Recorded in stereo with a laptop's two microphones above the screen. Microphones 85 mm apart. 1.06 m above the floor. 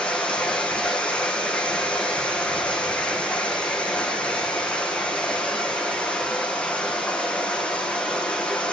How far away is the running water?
About 5 m.